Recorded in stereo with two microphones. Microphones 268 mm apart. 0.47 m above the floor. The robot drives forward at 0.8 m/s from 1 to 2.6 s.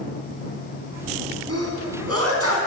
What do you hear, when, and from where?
1.5 s a sneeze: 70° right (ahead or behind), 4.5 m; by 2.6 s 60° right (ahead or behind), 4.5 m